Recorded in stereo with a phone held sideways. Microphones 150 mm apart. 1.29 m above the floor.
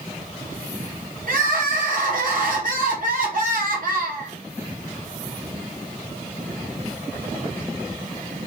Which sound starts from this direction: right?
Crying, at 1.3 s.